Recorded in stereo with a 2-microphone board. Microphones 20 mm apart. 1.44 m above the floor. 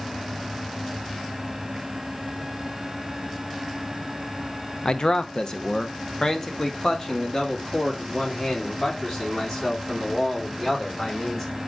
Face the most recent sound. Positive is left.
turn(degrees=30)  # may be behind; listen again after turning